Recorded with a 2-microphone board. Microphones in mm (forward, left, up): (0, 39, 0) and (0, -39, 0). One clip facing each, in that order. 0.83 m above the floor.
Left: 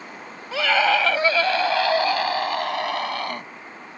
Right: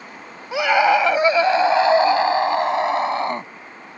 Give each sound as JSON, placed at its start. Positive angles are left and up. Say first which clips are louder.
{"t": 0.5, "sound": "a scream", "louder": "right 4 dB", "side_deg": -15}